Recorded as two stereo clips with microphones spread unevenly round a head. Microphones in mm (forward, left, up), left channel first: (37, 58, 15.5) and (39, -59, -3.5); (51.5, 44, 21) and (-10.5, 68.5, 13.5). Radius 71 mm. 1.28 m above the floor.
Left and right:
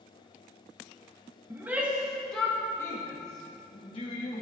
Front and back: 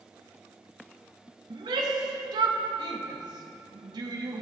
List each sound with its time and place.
1.5 s a shout: 165° right, 1.8 m; by 4.4 s 145° left, 2.5 m